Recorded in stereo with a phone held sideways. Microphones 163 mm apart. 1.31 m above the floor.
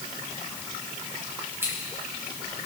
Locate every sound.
1.6 s scissors: 15° right (ahead or behind), 5.5 m